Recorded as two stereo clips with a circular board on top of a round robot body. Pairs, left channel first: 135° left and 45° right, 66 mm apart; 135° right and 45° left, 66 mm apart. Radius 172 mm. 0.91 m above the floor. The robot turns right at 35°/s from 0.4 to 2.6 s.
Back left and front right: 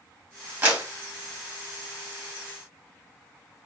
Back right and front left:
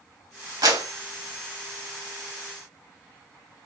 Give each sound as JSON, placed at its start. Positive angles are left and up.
{"t": 0.6, "sound": "a clap", "azimuth_deg": 25, "distance_m": 1.6}